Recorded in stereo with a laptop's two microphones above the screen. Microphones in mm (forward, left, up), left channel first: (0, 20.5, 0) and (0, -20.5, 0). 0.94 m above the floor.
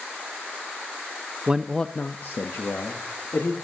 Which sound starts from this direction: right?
A man speaking, at 1.5 s.